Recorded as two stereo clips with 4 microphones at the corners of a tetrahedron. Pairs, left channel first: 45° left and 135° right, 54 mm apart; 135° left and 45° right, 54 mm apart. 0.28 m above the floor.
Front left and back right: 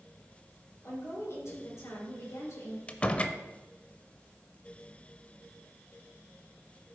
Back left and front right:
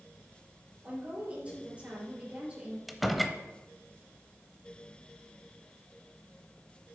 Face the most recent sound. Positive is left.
turn(degrees=45)